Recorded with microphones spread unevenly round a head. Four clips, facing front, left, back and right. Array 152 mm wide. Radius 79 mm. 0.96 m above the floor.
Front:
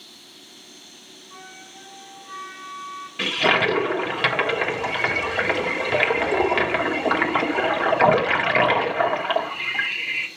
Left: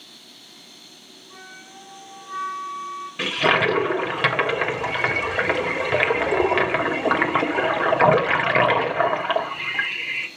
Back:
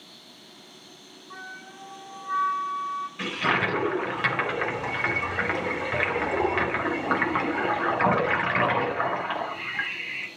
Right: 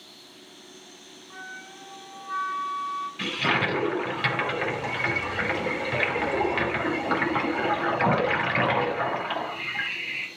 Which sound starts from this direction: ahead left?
A toilet flushing, at 3.2 s.